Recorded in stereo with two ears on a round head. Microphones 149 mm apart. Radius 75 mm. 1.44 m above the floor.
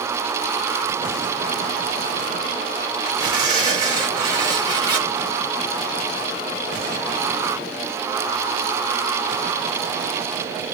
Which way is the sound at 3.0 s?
25° right (ahead or behind).